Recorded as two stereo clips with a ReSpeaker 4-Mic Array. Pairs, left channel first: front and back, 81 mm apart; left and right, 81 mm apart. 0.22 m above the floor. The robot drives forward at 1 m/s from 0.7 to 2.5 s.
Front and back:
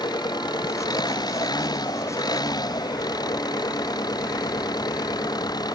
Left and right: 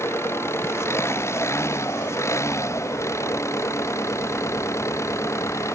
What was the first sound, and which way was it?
An engine running, 30° left.